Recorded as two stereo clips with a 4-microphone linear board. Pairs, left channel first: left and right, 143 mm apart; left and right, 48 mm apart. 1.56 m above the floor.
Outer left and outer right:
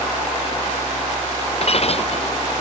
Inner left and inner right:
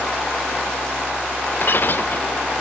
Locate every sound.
1.6 s breaking glass: 50° left (ahead or behind)